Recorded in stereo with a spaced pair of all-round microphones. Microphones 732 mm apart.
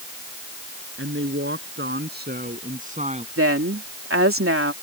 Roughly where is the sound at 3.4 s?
Centre.